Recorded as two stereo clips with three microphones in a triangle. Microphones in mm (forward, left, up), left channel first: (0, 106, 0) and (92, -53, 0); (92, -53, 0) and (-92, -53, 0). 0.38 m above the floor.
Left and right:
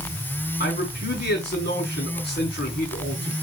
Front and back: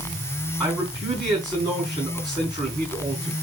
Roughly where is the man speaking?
Left.